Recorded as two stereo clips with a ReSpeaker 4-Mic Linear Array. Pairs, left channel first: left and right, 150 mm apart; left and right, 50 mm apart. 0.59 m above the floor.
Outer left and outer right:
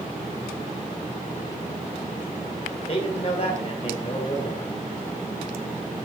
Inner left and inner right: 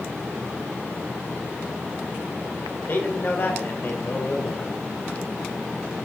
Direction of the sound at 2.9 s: 40° left (ahead or behind).